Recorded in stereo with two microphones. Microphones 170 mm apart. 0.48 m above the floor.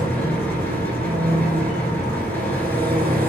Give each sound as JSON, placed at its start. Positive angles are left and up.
{"t": 0.0, "sound": "an engine running", "side_deg": 10, "distance_m": 1.6}